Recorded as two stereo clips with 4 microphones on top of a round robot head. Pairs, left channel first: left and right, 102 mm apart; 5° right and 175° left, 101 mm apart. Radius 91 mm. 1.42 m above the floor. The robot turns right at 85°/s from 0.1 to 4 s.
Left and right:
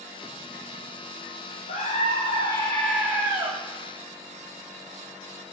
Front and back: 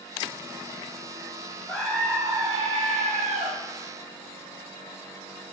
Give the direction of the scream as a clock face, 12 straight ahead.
9 o'clock.